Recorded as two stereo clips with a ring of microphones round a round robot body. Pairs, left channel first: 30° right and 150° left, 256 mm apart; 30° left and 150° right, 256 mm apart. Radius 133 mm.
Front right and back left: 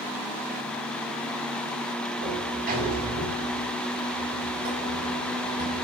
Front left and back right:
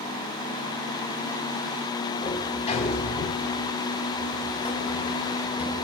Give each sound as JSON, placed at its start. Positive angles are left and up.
{"t": 2.2, "sound": "a sliding door", "azimuth_deg": 95, "distance_m": 4.0}